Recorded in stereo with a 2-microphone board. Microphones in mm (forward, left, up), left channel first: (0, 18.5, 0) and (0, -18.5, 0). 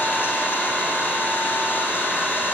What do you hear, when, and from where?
0.0 s an engine running: 75° left (ahead or behind), 8.5 m